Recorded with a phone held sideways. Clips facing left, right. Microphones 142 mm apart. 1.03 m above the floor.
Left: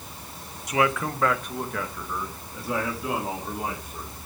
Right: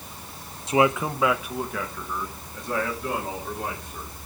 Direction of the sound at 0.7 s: 30° right (ahead or behind).